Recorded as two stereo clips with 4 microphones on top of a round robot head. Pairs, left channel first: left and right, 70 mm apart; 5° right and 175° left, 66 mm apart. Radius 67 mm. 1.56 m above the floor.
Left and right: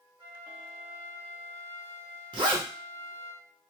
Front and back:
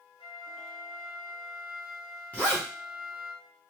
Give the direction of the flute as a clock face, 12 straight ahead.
1 o'clock.